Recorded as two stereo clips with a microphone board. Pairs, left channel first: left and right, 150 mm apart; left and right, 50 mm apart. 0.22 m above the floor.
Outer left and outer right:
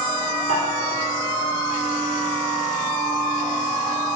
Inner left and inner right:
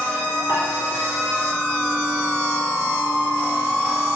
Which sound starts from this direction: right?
Dishes clattering, at 0.5 s.